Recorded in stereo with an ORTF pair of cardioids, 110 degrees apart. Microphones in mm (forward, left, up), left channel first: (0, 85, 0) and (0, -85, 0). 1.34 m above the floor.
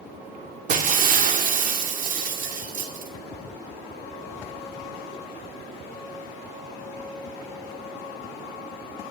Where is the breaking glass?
50° right, 2 m.